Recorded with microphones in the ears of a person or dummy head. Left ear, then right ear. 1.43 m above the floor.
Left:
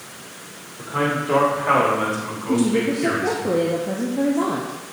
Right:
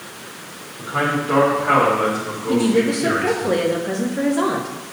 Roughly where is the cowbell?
I don't hear a cowbell.